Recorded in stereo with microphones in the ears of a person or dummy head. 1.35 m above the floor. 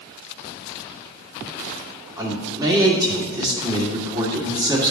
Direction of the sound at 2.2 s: 15° right (ahead or behind).